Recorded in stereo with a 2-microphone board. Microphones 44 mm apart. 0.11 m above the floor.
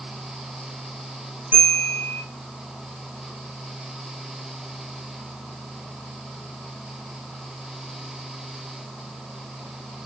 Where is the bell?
30° right (ahead or behind), 3 m.